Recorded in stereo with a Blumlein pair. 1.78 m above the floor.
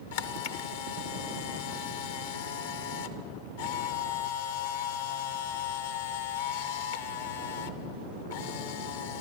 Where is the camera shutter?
55° left, 0.8 m.